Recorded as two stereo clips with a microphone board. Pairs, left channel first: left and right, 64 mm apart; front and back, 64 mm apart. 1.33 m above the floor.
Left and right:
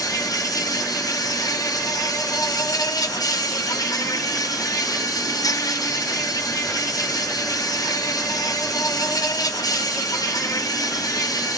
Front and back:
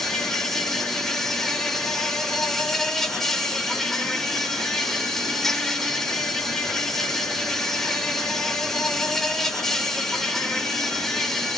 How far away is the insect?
About 6.5 m.